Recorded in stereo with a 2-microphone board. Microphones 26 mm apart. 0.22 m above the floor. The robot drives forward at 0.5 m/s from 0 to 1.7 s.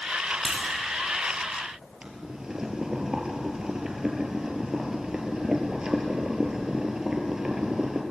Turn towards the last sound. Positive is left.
turn(degrees=-25)  # may be behind; listen again after turning